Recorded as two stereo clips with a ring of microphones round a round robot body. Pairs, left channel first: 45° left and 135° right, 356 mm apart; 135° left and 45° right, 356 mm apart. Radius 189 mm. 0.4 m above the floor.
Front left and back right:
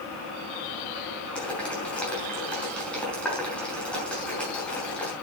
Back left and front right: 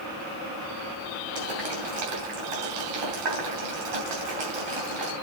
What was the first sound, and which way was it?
Boiling, 40° right.